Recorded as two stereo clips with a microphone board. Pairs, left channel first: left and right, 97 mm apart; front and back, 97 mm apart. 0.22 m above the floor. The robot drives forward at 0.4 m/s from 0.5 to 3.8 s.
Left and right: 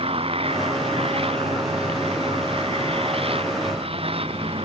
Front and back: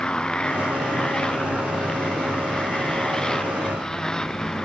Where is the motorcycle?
80° right.